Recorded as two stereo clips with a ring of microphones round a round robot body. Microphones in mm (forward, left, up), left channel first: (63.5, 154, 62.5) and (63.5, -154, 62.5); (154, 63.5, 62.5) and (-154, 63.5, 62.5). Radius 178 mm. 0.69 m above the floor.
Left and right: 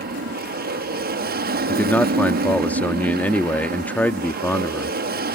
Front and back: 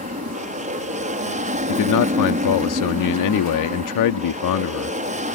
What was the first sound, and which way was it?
An aircraft, 130° right.